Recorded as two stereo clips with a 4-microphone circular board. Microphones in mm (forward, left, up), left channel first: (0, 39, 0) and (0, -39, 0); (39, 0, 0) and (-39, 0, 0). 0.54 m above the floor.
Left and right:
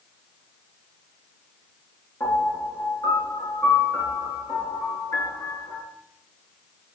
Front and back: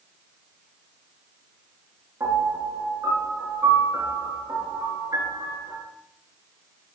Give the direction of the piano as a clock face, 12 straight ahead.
8 o'clock.